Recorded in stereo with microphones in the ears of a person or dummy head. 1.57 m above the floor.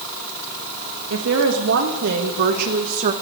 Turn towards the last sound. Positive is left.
turn(degrees=-40)  # may be behind; listen again after turning